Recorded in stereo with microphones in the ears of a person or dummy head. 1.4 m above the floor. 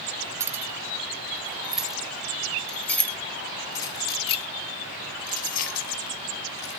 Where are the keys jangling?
15° right (ahead or behind), 3 m; by 6.8 s 65° left (ahead or behind), 2 m.